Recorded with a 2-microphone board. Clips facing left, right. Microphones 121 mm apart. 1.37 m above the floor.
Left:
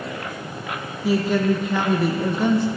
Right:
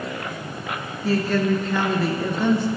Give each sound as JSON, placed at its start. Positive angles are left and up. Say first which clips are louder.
{"t": 1.0, "sound": "a woman speaking", "louder": "left 1 dB", "side_deg": 10, "distance_m": 1.0}